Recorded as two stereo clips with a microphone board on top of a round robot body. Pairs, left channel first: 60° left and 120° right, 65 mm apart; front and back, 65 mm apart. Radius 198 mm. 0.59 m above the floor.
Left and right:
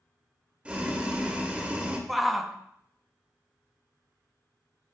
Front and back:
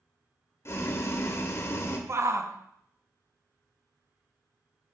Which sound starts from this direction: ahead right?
Boiling, at 0.7 s.